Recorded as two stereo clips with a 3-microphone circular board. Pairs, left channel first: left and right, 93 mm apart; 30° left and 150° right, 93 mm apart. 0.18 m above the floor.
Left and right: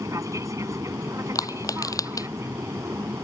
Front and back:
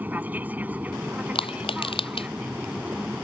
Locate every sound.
0.0 s an aircraft: 95° right; by 3.2 s 85° right
1.4 s crushing: 40° left